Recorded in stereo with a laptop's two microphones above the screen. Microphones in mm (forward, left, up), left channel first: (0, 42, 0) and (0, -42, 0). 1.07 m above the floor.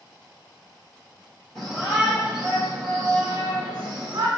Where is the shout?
5° left (ahead or behind), 1.0 m; by 4.3 s 60° right (ahead or behind), 1.0 m.